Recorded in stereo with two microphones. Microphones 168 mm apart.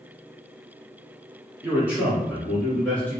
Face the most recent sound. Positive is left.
turn(degrees=10)  # may be behind; listen again after turning